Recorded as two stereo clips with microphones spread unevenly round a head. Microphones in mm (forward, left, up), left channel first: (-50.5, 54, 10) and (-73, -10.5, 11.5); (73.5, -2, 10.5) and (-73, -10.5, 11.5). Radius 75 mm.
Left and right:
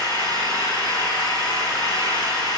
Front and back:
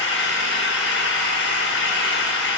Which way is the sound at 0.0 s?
10° left.